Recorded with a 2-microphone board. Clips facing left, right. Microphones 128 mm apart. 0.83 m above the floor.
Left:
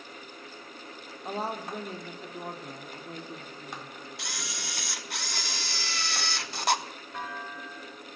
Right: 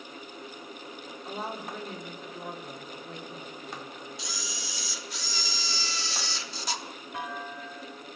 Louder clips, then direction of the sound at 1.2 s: Left 3 dB; 40° left (ahead or behind).